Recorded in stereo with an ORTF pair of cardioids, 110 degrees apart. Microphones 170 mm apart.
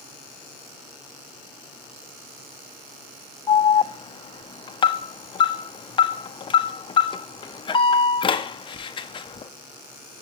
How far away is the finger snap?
I don't hear a finger snap.